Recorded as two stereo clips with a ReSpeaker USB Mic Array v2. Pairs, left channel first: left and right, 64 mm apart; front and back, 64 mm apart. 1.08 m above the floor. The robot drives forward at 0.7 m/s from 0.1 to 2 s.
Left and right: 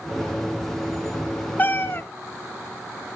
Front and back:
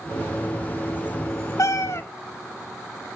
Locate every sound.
1.6 s a cat meowing: 30° left, 1.2 m; by 2.0 s 40° left, 1.0 m